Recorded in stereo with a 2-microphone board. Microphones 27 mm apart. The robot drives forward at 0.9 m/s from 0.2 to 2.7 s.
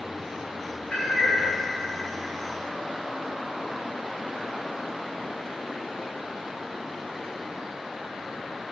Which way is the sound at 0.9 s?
50° left (ahead or behind).